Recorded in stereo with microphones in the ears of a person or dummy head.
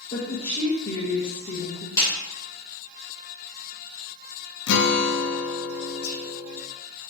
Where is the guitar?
60° left (ahead or behind), 0.6 m.